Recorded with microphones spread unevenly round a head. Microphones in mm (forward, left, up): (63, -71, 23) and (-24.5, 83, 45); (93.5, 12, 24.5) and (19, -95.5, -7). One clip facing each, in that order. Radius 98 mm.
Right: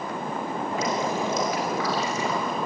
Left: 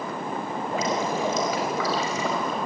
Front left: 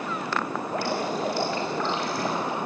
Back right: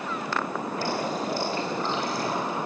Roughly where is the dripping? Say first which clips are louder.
Left 1 dB, front left 2 dB; left.